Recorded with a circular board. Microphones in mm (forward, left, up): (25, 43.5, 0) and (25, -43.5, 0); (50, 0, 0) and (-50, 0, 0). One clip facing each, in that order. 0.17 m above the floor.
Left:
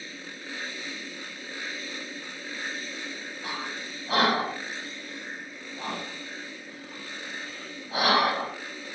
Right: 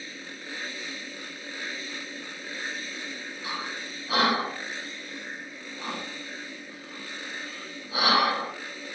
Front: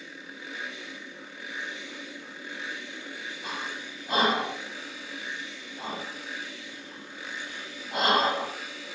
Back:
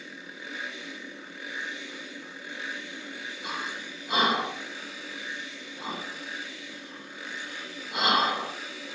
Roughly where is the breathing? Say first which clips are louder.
Even, back 1 dB; ahead left.